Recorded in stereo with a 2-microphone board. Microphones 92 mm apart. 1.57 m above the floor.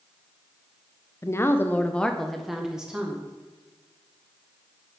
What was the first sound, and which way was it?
A woman speaking, 30° left (ahead or behind).